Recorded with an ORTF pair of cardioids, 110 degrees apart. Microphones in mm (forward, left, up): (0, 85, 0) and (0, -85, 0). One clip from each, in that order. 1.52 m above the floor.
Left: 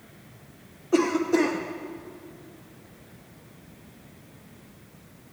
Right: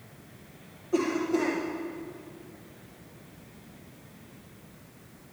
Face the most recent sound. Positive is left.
turn(degrees=50)